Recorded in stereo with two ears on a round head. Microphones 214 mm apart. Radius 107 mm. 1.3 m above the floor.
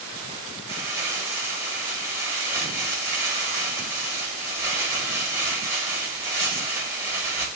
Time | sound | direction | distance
0.7 | crumpling | 10° right (ahead or behind) | 1.4 m